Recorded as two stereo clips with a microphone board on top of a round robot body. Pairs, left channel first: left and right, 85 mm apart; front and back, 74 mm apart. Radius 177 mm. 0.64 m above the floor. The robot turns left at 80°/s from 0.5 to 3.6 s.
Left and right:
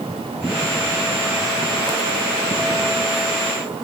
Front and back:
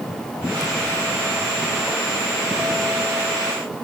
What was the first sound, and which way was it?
Only background noise.